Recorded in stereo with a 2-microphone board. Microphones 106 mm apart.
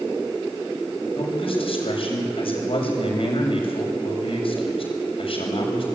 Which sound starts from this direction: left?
A man speaking, at 1.2 s.